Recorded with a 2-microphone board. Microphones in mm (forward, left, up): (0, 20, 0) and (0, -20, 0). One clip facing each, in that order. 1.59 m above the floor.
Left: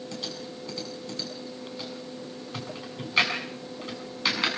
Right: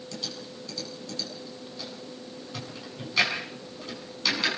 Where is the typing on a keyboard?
30° left (ahead or behind), 6 m.